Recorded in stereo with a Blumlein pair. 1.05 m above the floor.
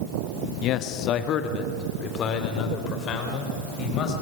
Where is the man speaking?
35° left, 1.0 m; by 4.1 s 30° left, 5 m.